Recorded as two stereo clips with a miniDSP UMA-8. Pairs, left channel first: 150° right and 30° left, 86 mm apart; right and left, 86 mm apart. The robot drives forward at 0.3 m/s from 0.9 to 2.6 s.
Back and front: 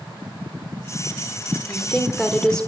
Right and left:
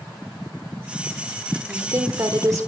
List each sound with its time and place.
1.7 s a woman speaking: 120° left, 1.6 m; by 2.7 s 130° left, 1.7 m